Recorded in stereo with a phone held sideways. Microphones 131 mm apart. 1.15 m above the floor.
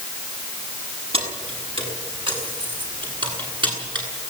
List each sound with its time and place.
1.1 s keys jangling: 50° right (ahead or behind), 7 m; by 4.0 s 35° right (ahead or behind), 10 m